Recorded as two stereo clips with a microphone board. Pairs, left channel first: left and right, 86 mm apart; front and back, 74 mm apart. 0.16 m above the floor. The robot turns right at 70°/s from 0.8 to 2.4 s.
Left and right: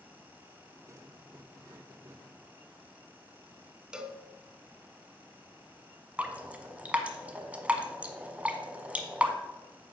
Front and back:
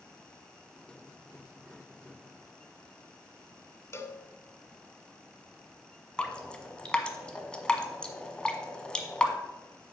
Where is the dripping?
50° right, 1.1 m.